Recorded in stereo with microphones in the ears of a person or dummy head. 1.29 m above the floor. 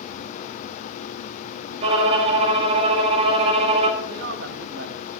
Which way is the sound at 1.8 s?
30° right (ahead or behind).